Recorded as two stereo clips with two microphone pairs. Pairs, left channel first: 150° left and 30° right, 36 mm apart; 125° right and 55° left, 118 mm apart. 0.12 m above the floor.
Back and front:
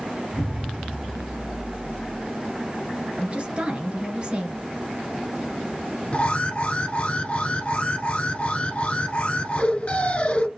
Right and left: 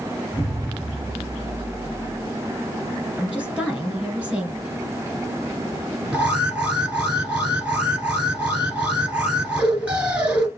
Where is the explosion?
20° right, 2.5 m.